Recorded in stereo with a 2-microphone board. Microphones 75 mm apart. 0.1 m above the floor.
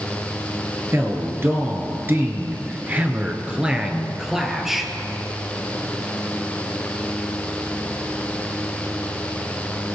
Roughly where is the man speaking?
Right.